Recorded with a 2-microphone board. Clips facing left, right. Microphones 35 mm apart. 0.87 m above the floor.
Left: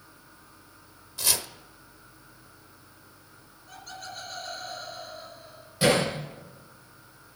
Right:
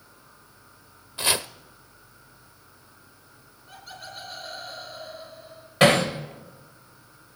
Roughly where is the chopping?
Right.